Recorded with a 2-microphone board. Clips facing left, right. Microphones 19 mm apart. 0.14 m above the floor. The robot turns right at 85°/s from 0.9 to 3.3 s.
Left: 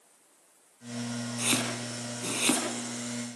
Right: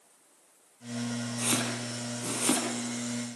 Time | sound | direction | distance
1.4 | chopping | 20° left (ahead or behind) | 4 m